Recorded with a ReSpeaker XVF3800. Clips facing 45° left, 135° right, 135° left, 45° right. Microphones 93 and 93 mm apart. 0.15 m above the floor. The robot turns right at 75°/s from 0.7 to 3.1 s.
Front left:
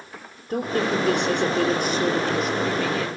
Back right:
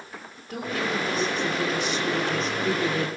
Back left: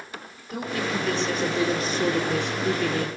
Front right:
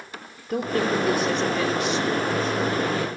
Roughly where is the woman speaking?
Ahead.